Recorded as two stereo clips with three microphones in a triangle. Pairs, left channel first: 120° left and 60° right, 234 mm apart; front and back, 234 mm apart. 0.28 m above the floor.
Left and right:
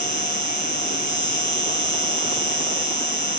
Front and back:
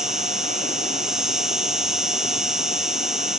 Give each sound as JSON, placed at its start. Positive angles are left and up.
{"t": 0.0, "sound": "an insect", "azimuth_deg": 95}